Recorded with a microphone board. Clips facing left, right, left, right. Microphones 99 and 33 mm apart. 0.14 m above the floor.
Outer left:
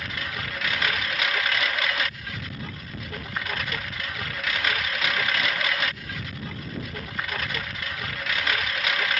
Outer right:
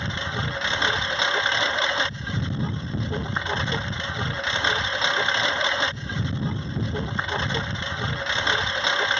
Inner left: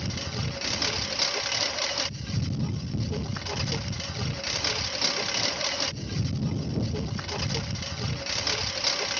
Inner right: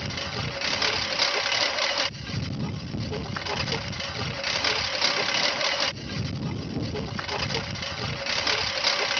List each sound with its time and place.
0.0 s a lawn mower: 25° right (ahead or behind)